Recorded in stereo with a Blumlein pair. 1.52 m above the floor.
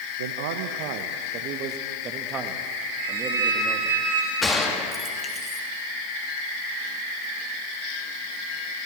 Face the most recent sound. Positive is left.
turn(degrees=15)